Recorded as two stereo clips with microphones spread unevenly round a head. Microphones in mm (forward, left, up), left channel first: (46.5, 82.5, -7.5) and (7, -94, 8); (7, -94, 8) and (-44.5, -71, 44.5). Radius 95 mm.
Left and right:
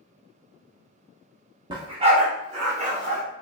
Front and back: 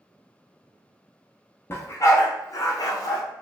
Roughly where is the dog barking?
Right.